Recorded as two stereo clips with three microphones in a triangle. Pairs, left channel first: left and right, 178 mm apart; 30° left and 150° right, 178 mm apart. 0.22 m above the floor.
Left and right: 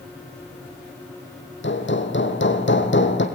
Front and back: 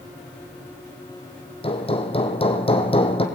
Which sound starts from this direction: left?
Hammering, at 1.6 s.